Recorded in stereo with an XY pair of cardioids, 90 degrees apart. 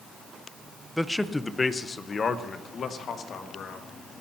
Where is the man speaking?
5° left, 0.9 m; by 3.9 s 70° left, 2 m.